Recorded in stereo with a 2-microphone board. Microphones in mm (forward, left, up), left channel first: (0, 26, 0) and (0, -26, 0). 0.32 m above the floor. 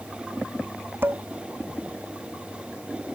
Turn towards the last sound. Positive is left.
turn(degrees=-40)  # may be behind; listen again after turning